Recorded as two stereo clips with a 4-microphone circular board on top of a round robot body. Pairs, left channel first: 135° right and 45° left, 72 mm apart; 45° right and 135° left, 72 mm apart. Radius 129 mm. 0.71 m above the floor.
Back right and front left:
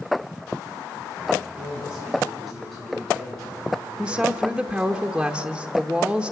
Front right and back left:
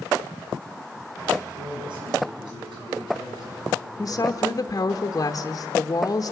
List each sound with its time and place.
1.4 s a man speaking: 125° left, 8.5 m; by 4.4 s 145° left, 10 m
4.0 s a woman speaking: 30° right, 1.0 m